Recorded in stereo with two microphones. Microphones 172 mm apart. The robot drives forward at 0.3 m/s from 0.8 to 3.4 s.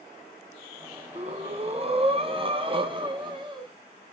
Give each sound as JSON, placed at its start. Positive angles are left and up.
{"t": 1.1, "sound": "breathing", "side_deg": -40, "distance_m": 1.1}